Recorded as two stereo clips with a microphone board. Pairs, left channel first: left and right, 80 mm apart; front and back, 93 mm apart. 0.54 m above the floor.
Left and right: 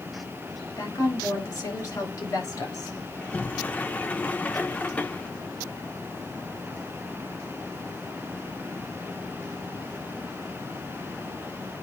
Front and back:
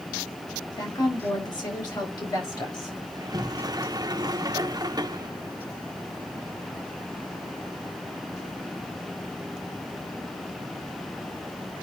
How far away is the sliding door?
About 0.8 m.